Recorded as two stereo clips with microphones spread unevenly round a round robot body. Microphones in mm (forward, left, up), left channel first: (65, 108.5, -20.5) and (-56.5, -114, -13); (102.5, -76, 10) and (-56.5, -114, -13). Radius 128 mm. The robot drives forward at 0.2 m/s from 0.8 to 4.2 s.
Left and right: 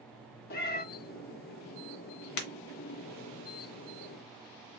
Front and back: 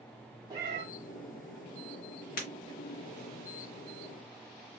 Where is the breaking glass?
55° left, 0.9 m.